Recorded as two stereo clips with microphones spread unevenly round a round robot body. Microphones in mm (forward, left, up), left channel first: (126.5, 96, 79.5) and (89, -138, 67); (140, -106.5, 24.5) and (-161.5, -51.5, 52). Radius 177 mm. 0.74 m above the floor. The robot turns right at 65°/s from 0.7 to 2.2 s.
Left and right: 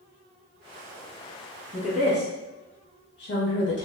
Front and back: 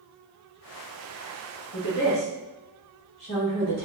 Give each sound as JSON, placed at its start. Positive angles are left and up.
{"t": 1.7, "sound": "a woman speaking", "azimuth_deg": 15, "distance_m": 1.3}